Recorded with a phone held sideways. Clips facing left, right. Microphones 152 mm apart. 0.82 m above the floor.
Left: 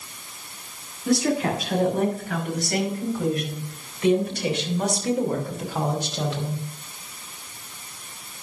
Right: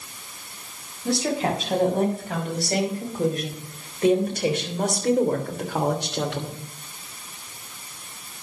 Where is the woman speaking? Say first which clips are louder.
Left 2 dB; 30° right (ahead or behind), 6.5 m; by 6.7 s 75° right (ahead or behind), 2.5 m.